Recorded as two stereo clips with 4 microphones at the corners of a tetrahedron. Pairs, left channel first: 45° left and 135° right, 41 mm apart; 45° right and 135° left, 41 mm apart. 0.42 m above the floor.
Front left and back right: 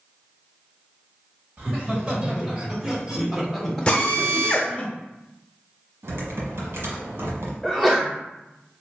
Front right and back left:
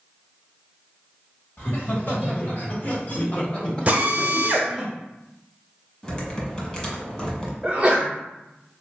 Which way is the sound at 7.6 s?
120° left.